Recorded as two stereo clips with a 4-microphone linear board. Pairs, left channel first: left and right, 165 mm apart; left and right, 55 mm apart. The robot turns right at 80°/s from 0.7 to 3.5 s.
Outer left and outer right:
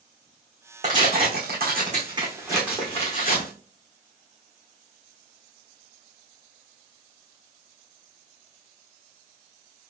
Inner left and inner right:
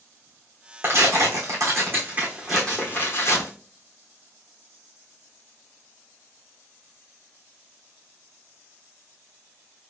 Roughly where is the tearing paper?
Right.